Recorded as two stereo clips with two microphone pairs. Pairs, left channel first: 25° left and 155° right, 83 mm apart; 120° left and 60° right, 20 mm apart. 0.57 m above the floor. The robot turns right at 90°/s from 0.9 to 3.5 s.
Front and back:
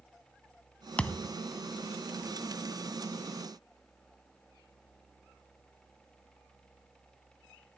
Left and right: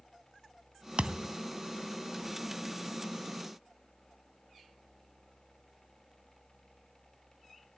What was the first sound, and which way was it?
A thud, 55° right.